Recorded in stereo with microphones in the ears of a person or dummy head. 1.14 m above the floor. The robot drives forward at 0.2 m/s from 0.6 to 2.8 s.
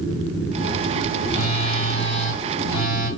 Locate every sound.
1.3 s a phone buzzing: 40° left (ahead or behind), 1.4 m; by 3.1 s 35° left (ahead or behind), 1.6 m